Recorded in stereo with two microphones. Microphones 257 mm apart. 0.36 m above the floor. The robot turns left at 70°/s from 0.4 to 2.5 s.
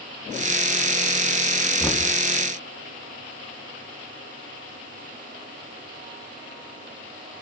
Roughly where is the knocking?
Centre.